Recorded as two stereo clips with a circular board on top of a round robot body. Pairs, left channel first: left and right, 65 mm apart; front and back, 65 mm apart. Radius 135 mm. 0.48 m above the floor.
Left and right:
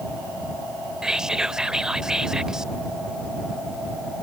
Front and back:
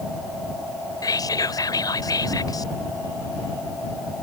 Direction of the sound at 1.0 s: 10° right.